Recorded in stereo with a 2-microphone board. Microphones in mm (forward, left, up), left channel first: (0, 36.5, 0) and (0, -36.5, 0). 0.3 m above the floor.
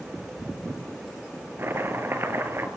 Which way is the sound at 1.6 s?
30° right (ahead or behind).